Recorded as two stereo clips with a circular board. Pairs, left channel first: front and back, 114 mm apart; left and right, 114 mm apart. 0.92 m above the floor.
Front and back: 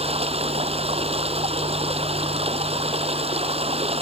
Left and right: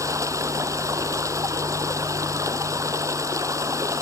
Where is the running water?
150° right.